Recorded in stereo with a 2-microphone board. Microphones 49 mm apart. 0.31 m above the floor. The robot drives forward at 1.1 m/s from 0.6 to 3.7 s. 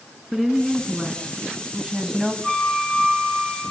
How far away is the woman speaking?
About 3.5 m.